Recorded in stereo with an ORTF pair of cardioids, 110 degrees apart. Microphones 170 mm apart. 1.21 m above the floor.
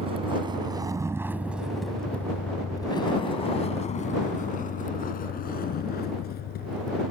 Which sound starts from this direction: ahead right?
A vehicle, at 0.0 s.